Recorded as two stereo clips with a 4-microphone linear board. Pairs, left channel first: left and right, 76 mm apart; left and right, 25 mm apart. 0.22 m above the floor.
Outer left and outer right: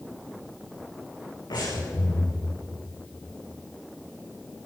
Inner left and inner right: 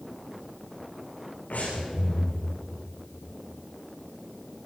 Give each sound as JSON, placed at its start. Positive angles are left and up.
{"t": 1.5, "sound": "breathing", "side_deg": 70, "distance_m": 10.0}